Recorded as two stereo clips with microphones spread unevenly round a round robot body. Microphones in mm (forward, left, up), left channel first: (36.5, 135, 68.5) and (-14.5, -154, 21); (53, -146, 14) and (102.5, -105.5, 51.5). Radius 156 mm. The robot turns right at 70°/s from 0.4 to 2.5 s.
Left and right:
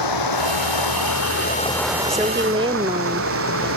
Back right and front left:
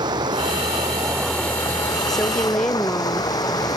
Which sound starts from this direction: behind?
A woman speaking, at 2.1 s.